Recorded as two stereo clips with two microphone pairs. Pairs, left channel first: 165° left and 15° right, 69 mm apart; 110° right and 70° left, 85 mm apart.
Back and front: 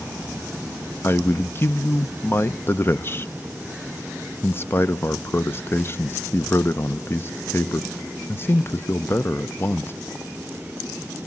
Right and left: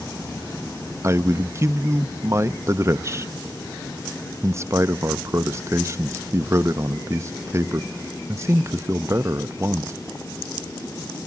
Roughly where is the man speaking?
Behind left.